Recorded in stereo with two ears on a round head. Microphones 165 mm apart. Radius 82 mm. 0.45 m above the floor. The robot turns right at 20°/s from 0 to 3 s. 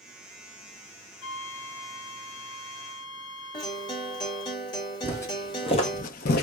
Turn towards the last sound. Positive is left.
turn(degrees=55)  # may be behind; listen again after turning